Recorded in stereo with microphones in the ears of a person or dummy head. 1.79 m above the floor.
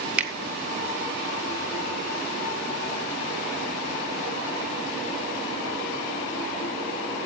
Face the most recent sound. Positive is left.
turn(degrees=-5)  # may be behind; listen again after turning